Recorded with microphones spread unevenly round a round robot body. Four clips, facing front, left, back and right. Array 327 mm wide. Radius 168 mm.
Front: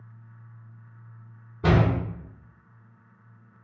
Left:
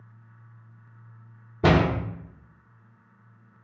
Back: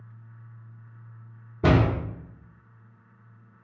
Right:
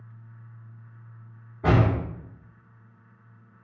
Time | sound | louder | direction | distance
1.6 | a door slam | left 2 dB, back 1 dB | 120° left | 0.7 m